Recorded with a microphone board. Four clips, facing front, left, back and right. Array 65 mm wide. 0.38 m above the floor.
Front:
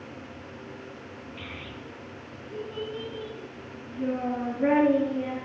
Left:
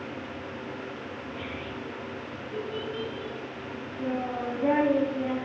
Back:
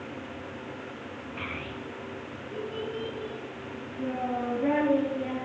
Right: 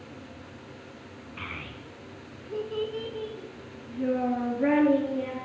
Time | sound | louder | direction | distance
1.4 | a child speaking | even, back 6 dB | 140° right | 2.5 m